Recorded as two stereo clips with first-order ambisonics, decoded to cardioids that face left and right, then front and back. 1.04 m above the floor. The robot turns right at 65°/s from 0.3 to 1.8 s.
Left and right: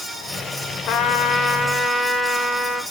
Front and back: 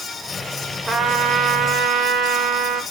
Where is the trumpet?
110° left, 0.9 m; by 2.8 s 170° left, 0.9 m.